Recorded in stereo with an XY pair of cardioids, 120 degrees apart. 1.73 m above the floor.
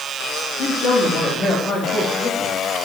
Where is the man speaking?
60° left, 4.5 m; by 2.6 s 35° left, 3.5 m.